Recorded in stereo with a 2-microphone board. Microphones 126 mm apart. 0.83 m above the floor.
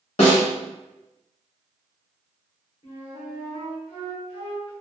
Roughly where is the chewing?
No chewing in this recording.